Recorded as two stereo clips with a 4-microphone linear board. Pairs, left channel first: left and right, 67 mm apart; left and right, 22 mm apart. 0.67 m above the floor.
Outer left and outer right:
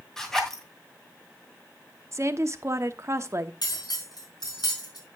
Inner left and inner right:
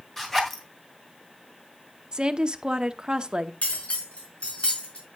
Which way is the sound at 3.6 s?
85° left.